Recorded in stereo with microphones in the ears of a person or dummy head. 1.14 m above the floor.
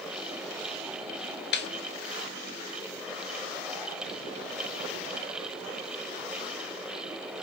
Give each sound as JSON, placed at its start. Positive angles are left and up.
{"t": 1.5, "sound": "a snare drum", "side_deg": 50, "distance_m": 0.7}